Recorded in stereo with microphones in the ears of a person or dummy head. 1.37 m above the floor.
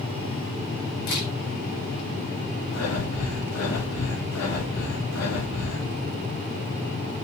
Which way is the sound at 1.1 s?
60° left (ahead or behind).